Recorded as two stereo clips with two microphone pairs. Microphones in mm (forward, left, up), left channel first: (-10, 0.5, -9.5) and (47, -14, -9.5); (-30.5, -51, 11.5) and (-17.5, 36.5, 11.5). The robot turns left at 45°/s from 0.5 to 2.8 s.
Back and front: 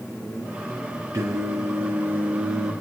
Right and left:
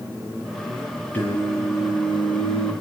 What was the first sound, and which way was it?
Singing, 25° right.